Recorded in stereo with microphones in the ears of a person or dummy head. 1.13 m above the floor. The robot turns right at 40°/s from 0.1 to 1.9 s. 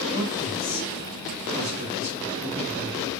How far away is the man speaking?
About 1.3 m.